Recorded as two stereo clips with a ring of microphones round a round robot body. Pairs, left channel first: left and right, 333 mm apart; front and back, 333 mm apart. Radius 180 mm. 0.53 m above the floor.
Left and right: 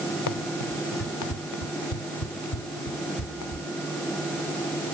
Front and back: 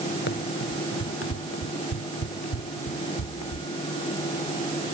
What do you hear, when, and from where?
0.3 s running footsteps: 65° left; by 3.7 s 50° left